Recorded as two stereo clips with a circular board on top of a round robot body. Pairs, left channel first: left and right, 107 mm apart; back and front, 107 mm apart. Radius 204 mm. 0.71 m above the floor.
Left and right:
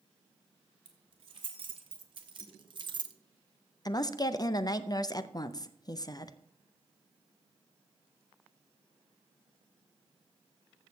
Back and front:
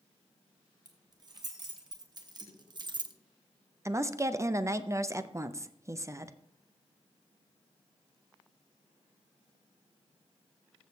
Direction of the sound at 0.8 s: 50° right.